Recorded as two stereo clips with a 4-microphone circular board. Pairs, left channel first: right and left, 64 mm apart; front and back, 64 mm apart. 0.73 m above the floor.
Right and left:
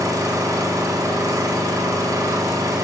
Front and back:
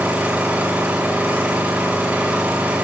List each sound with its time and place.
0.0 s an engine running: 120° left, 4.5 m